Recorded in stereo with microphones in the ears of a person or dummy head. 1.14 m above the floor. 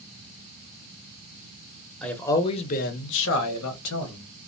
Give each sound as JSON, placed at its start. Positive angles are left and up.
{"t": 2.0, "sound": "a man speaking", "side_deg": 5, "distance_m": 0.7}